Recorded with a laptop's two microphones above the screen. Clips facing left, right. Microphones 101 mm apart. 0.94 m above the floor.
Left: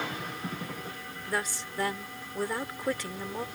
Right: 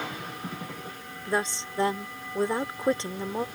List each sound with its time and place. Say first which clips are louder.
1.3 s a woman speaking: right 5 dB; 25° right (ahead or behind)